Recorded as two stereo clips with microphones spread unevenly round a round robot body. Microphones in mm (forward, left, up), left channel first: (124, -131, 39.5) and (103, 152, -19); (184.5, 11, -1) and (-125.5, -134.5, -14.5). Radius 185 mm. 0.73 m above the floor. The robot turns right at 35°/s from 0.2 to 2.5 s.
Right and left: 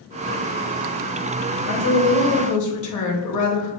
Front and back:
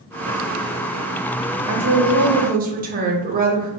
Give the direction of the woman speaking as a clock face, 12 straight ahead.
4 o'clock.